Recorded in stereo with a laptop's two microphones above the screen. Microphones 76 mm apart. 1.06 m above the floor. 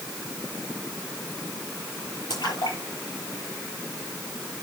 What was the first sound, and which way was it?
A splash, 75° left (ahead or behind).